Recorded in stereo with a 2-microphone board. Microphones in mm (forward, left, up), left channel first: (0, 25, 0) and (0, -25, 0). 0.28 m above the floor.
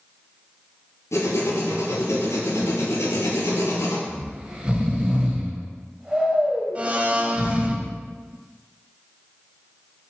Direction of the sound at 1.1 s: 85° left.